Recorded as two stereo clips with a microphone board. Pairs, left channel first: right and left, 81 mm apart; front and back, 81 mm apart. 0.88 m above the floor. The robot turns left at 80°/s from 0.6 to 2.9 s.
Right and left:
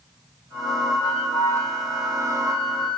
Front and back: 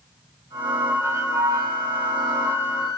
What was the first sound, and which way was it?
A flute, 110° right.